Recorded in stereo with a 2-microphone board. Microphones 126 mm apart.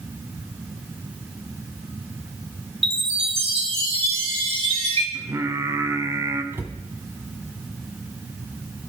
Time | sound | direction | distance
2.8 | a chime | 50° right (ahead or behind) | 2.0 m
5.1 | singing | 25° right (ahead or behind) | 1.1 m
6.5 | a cupboard door | 20° right (ahead or behind) | 1.2 m